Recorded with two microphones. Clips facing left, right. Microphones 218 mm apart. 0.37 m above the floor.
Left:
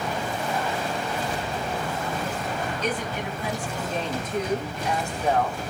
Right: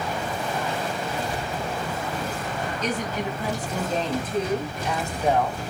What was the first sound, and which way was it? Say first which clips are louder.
A woman speaking: right 4 dB; 45° right (ahead or behind).